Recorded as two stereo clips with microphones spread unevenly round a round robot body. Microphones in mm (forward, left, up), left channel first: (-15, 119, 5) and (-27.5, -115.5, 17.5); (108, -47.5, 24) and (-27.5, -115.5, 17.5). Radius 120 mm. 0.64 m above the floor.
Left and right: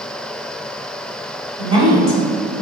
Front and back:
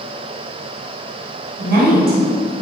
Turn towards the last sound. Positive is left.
turn(degrees=-160)